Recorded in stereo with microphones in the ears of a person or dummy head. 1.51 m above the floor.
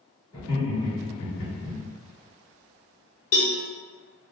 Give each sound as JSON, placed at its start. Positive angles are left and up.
{"t": 0.3, "sound": "laughter", "side_deg": 25, "distance_m": 1.8}
{"t": 3.3, "sound": "a cowbell", "side_deg": 50, "distance_m": 0.7}